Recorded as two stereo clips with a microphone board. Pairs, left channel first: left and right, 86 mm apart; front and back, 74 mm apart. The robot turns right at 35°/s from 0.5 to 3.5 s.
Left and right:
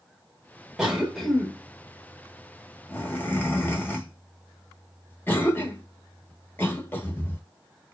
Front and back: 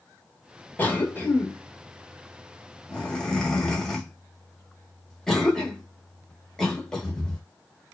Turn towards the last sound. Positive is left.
turn(degrees=75)